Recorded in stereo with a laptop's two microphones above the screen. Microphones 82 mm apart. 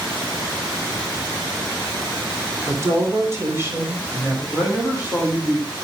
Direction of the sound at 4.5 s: 25° right (ahead or behind).